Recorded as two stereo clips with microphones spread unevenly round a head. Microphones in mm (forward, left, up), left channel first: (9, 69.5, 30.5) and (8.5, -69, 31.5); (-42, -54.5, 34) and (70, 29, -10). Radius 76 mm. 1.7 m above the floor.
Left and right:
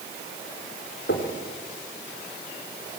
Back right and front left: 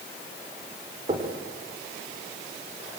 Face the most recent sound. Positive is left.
turn(degrees=95)